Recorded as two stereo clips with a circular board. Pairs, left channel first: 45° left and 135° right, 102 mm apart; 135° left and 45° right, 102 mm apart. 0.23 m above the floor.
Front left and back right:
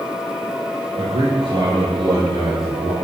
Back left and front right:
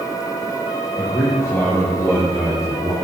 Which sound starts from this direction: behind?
A man speaking, at 1.0 s.